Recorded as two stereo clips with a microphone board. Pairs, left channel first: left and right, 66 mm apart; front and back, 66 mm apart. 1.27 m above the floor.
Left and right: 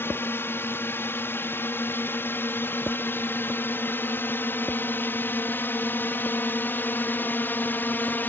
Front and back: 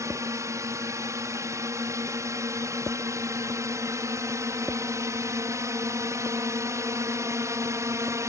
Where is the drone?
145° left.